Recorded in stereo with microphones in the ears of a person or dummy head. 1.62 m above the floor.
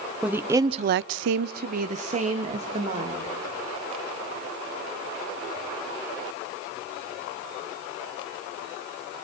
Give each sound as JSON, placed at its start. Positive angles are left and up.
{"t": 0.2, "sound": "a woman speaking", "side_deg": -5, "distance_m": 1.3}